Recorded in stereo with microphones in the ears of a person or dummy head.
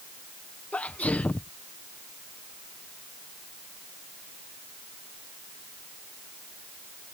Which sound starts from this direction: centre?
A sneeze, at 0.7 s.